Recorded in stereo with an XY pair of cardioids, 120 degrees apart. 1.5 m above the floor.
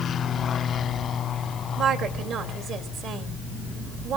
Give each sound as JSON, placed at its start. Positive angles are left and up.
{"t": 1.8, "sound": "a woman speaking", "azimuth_deg": -70, "distance_m": 2.5}